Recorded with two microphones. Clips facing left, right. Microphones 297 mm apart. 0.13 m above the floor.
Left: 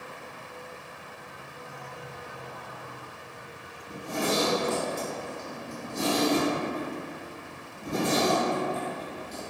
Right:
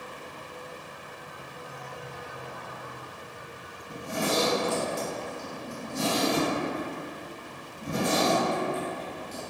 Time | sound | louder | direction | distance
3.9 | a zipper | even | 20° right (ahead or behind) | 1.8 m